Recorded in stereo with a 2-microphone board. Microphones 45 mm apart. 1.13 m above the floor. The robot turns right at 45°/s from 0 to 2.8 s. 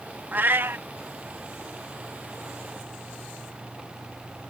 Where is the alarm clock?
No alarm clock in this recording.